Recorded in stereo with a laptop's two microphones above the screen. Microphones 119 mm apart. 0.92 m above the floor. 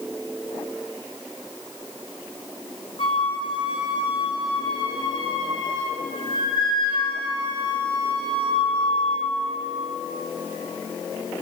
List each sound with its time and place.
3.0 s a flute: 45° left (ahead or behind), 1.5 m